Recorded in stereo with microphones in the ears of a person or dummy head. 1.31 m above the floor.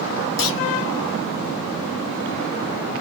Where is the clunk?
70° left (ahead or behind), 1.6 m.